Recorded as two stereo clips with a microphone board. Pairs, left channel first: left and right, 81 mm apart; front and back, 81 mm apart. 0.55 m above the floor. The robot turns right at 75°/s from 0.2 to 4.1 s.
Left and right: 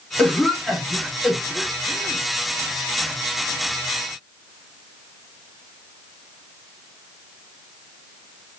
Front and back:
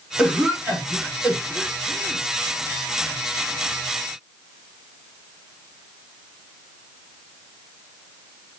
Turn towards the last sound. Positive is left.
turn(degrees=55)